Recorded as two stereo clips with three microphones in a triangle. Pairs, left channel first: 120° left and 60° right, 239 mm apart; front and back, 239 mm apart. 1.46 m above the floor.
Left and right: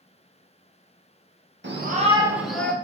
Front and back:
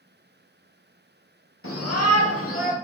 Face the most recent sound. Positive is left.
turn(degrees=40)